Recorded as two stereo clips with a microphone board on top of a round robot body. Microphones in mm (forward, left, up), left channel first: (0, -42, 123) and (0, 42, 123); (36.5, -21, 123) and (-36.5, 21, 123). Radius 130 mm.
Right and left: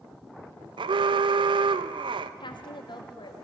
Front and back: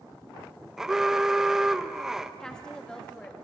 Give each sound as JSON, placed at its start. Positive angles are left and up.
{"t": 0.8, "sound": "an alarm", "azimuth_deg": 65, "distance_m": 0.7}
{"t": 2.4, "sound": "a woman speaking", "azimuth_deg": -110, "distance_m": 2.5}